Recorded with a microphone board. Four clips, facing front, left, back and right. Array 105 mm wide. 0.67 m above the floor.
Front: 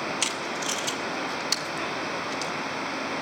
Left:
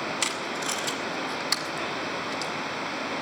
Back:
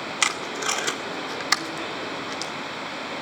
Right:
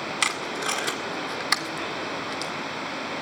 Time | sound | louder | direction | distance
0.2 | tape being pulled | right 2 dB, back 3 dB | 150° right | 1.9 m